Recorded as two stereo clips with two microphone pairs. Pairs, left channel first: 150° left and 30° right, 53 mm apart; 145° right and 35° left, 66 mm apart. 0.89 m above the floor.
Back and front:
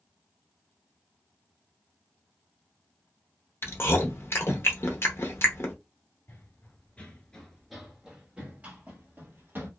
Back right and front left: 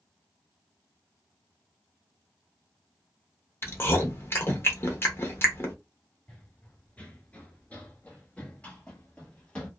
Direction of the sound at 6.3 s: 145° left.